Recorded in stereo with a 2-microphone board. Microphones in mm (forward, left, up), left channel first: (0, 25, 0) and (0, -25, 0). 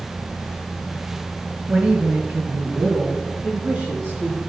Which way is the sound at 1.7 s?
30° right (ahead or behind).